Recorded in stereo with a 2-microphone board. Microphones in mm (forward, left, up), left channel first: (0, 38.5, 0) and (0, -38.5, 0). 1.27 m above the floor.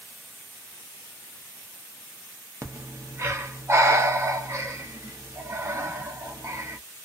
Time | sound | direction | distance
2.6 | breathing | 35° right (ahead or behind) | 0.7 m